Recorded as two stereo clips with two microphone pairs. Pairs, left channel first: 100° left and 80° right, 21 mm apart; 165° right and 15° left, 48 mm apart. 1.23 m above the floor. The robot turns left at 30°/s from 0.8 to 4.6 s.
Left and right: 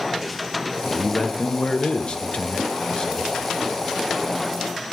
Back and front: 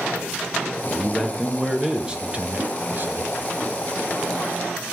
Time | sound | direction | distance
0.8 | a man speaking | 120° left | 0.7 m